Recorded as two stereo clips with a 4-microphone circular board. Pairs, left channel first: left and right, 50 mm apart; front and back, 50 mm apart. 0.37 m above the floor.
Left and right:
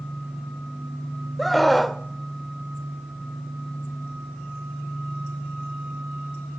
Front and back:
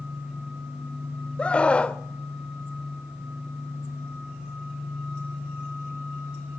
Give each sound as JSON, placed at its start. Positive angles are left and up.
{"t": 1.4, "sound": "a scream", "azimuth_deg": 5, "distance_m": 1.0}